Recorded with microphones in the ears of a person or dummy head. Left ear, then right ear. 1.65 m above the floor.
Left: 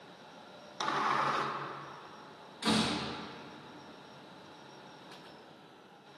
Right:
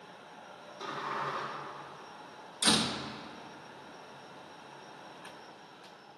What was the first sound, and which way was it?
A sliding door, 75° left (ahead or behind).